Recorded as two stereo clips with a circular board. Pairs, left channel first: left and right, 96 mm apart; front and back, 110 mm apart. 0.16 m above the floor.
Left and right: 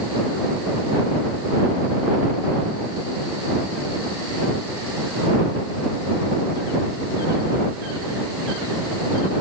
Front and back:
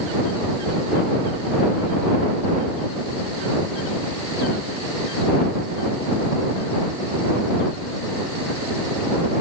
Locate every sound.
Only background noise.